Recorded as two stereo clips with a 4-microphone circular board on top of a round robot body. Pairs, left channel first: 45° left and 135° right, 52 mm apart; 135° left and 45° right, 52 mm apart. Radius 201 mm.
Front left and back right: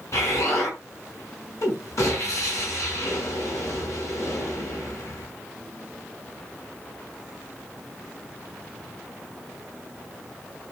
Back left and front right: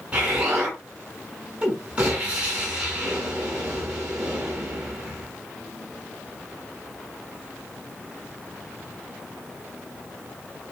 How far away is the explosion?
About 7 m.